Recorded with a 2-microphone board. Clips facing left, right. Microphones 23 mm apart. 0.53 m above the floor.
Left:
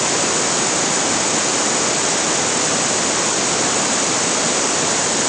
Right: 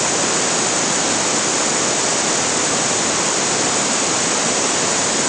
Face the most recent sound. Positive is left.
No sound to turn to.